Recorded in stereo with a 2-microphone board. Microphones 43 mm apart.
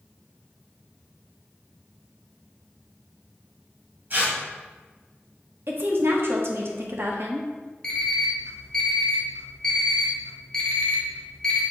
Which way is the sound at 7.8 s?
15° left (ahead or behind).